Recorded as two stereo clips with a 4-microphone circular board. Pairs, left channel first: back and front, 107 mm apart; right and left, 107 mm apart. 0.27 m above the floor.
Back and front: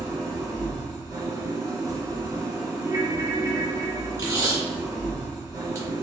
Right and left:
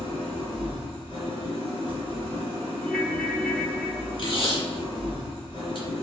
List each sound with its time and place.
0.0 s an engine running: 60° right, 1.9 m
2.8 s a ringtone: 5° right, 0.9 m
4.2 s tape being pulled: 55° right, 2.5 m